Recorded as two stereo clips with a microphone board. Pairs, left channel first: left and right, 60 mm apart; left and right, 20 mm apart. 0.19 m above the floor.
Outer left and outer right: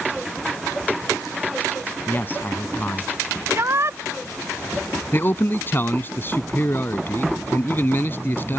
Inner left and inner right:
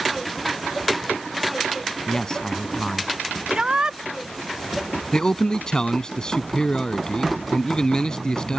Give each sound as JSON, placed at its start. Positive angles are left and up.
{"t": 2.1, "sound": "a man speaking", "side_deg": 35}
{"t": 3.5, "sound": "a shout", "side_deg": -45}
{"t": 5.1, "sound": "a man speaking", "side_deg": 35}